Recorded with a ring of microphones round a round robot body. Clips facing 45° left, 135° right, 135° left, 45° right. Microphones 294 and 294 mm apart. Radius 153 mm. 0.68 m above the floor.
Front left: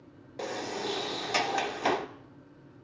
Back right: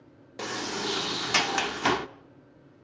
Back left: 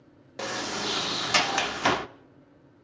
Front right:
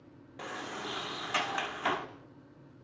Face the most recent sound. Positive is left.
turn(degrees=160)